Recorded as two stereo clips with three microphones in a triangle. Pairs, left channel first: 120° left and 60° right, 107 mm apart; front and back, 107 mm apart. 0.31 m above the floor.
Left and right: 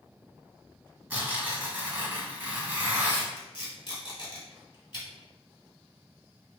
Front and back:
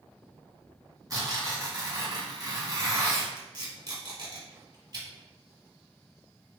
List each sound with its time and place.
1.1 s tearing paper: 135° right, 1.3 m
3.4 s tape being pulled: 150° left, 1.9 m